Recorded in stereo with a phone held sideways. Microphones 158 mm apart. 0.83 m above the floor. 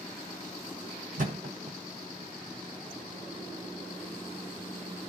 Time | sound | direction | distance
1.2 | a thud | 55° right (ahead or behind) | 1.6 m